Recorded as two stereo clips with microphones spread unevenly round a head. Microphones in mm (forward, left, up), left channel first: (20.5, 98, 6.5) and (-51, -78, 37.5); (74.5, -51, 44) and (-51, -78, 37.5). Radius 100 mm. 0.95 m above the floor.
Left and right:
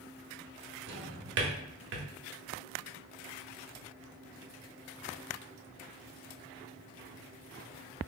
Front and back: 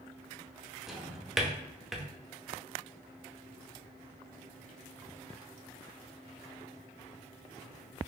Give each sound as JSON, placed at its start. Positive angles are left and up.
{"t": 0.9, "sound": "a drawer", "azimuth_deg": -80, "distance_m": 0.8}